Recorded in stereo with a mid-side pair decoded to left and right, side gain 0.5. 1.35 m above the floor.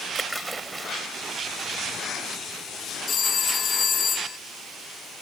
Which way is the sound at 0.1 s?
20° right.